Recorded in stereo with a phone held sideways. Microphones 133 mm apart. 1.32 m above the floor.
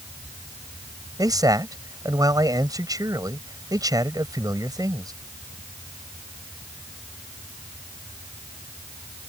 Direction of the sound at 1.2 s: 30° right (ahead or behind).